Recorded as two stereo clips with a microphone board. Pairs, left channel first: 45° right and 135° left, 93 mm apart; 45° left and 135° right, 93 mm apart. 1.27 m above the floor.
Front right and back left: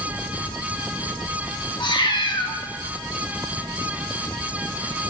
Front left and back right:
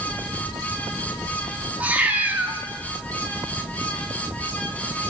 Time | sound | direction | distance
1.8 | a cat meowing | 65° right | 1.1 m